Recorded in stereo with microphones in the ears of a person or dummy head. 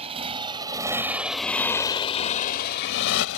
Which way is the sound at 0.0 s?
30° right (ahead or behind).